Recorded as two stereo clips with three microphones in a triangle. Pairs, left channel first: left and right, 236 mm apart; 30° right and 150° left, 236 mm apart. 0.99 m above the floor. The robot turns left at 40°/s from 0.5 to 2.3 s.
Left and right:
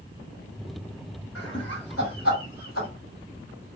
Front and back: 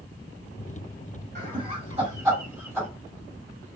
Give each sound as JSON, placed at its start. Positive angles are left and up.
{"t": 1.4, "sound": "laughter", "azimuth_deg": 110, "distance_m": 2.5}